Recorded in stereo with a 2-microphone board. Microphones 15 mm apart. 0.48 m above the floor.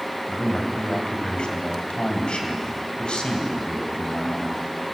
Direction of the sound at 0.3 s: 70° left (ahead or behind).